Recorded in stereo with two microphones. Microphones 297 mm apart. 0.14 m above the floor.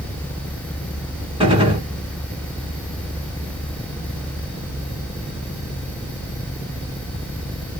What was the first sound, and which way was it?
A gunshot, 20° right (ahead or behind).